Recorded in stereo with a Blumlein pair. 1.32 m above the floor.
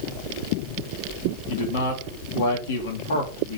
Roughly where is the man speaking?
Ahead left.